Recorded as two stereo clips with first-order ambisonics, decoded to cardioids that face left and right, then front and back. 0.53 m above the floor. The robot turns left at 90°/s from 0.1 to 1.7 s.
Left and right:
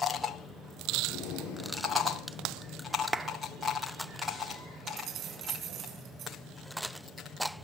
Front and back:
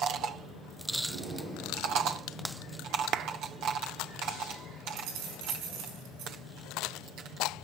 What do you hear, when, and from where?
1.1 s breathing: 150° left, 5 m; by 3.0 s 90° left, 5 m
3.1 s a clap: 160° right, 0.6 m
4.9 s keys jangling: 145° right, 4.5 m